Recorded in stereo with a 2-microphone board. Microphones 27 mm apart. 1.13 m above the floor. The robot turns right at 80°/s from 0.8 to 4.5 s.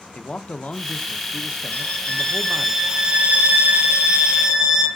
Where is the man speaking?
50° left, 0.6 m; by 2.7 s 155° right, 0.6 m.